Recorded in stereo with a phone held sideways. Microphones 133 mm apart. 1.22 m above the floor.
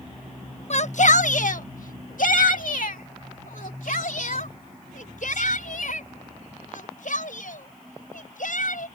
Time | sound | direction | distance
0.7 | a shout | 55° left (ahead or behind) | ?